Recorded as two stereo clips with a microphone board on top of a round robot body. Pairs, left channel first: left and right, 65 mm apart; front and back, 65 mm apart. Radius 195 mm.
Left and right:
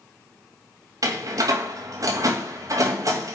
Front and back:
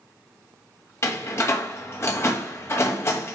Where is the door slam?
50° right, 2 m.